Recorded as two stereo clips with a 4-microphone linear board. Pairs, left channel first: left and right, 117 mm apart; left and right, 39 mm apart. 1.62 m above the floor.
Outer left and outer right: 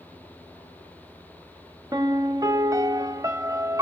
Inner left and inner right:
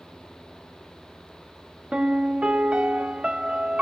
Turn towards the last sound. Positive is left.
turn(degrees=-30)  # may be behind; listen again after turning